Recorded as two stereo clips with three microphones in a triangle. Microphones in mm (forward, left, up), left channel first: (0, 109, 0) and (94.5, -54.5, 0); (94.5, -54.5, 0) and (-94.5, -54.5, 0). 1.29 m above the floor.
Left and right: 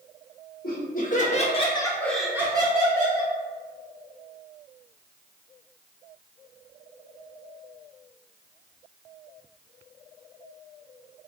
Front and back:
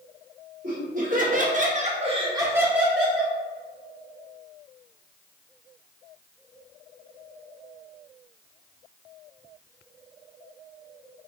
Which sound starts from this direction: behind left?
Laughter, at 0.6 s.